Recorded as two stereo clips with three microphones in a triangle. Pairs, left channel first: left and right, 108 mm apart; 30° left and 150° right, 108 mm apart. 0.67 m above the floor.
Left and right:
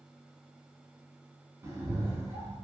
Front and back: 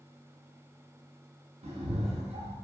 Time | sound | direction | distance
1.6 | a cat meowing | 155° right | 0.5 m